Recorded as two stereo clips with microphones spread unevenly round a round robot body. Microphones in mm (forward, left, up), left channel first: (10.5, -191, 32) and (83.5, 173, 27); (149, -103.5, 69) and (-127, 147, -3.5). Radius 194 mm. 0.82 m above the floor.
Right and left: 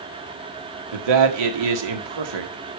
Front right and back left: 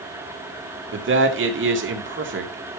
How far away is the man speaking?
About 2 m.